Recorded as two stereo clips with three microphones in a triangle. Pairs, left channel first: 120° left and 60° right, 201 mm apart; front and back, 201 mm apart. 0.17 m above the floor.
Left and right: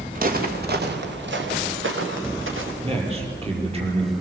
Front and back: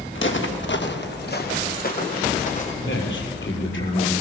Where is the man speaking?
Straight ahead, 6 m.